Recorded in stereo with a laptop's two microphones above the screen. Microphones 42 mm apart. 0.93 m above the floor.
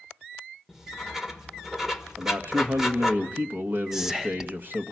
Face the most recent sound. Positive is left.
turn(degrees=-10)  # may be behind; listen again after turning